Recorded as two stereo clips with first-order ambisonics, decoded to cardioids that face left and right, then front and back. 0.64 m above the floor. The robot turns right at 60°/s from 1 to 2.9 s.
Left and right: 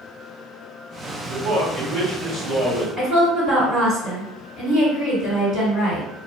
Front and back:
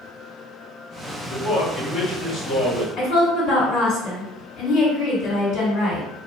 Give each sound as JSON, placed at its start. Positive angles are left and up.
{"t": 1.3, "sound": "a man speaking", "azimuth_deg": -110, "distance_m": 1.6}
{"t": 3.0, "sound": "a woman speaking", "azimuth_deg": -35, "distance_m": 1.8}